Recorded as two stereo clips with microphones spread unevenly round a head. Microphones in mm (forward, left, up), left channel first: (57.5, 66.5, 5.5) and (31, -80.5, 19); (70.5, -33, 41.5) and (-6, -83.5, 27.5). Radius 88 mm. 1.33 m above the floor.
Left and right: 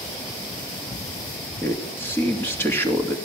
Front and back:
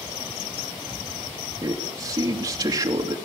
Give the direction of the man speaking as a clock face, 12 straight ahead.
7 o'clock.